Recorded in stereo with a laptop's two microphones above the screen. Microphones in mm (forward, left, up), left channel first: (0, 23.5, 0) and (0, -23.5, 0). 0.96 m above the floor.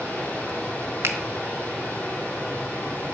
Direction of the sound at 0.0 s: 35° left (ahead or behind).